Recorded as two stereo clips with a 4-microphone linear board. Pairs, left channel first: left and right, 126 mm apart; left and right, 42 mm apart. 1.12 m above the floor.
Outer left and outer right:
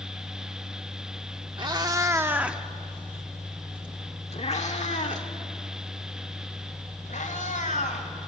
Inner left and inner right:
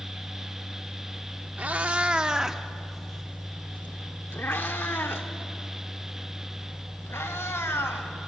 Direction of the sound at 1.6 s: 35° right (ahead or behind).